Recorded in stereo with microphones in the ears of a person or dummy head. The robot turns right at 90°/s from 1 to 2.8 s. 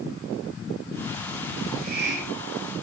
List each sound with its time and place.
1.6 s a hiss: 160° right, 9.5 m; by 2.7 s 60° right, 9.5 m